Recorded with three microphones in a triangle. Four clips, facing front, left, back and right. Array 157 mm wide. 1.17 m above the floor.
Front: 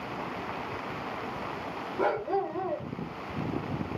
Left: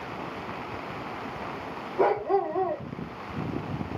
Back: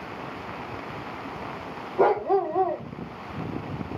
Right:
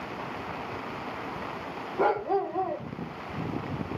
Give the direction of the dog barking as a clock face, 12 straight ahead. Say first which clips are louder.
Left 2 dB, back 7 dB; 6 o'clock.